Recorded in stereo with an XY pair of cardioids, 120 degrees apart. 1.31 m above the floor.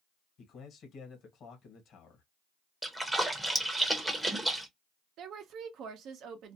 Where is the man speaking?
60° left, 1.2 m.